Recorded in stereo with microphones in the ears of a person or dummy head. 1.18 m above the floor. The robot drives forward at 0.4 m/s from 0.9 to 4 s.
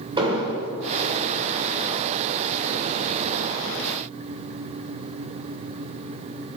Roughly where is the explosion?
Right.